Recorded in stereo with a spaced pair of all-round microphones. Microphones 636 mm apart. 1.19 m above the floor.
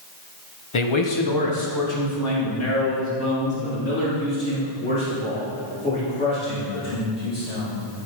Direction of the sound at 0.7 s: 50° left (ahead or behind).